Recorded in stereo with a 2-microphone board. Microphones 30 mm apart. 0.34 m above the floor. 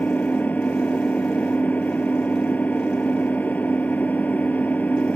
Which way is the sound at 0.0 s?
75° left (ahead or behind).